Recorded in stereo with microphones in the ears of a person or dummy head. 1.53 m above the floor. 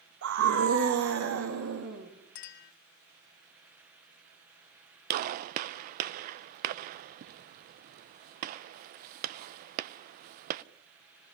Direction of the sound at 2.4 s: 45° left (ahead or behind).